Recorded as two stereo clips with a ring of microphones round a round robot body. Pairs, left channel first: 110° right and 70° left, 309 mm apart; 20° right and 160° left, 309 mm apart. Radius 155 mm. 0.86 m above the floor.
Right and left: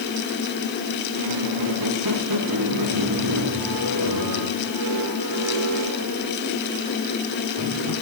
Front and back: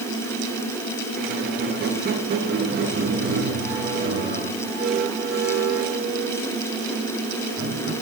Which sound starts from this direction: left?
A squeak, at 1.1 s.